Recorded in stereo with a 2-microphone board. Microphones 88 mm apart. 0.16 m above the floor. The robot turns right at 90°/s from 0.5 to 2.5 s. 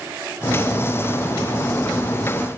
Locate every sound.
Only background noise.